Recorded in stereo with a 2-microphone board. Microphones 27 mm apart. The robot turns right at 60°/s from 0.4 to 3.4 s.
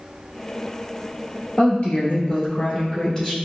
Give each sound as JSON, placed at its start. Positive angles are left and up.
{"t": 1.6, "sound": "a woman speaking", "azimuth_deg": 60, "distance_m": 1.8}